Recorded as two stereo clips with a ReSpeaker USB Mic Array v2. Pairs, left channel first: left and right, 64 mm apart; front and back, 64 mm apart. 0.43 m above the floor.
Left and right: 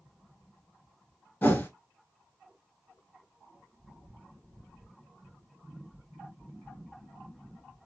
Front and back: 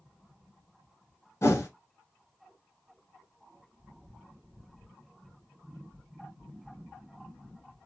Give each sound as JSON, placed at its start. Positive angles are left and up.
{"t": 1.4, "sound": "a whoosh", "azimuth_deg": 40, "distance_m": 1.1}